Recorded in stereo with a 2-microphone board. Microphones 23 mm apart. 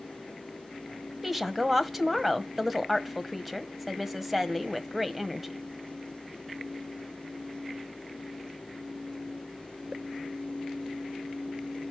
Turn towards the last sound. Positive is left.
turn(degrees=-10)  # may be behind; listen again after turning